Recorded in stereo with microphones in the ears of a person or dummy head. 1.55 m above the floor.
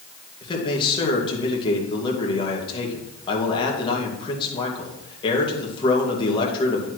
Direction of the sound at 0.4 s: 30° left (ahead or behind).